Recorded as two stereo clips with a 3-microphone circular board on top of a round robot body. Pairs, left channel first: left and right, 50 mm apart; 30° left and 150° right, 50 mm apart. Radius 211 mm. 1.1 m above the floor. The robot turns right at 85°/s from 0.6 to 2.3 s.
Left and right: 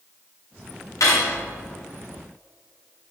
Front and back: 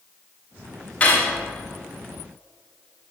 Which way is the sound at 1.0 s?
95° left.